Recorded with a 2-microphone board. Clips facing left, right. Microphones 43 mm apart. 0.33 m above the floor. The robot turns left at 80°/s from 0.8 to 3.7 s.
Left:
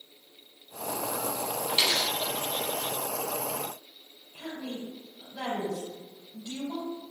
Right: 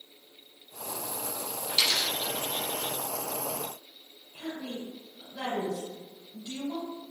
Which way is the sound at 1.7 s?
30° left (ahead or behind).